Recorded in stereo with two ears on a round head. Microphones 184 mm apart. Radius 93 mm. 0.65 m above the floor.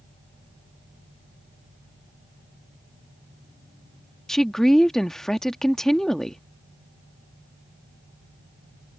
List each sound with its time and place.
4.3 s a woman speaking: centre (ahead or behind)